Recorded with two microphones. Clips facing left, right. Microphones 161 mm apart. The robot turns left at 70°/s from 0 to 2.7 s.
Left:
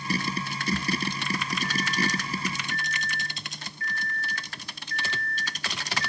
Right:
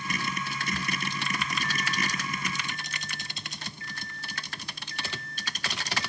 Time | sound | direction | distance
1.6 | a microwave | 5° left (ahead or behind) | 0.9 m